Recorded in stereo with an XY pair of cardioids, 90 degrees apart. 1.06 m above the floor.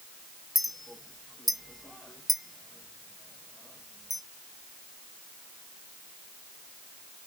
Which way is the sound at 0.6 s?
5° left.